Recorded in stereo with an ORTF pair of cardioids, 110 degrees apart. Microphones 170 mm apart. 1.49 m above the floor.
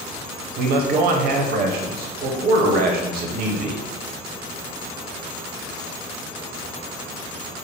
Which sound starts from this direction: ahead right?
A man speaking, at 0.6 s.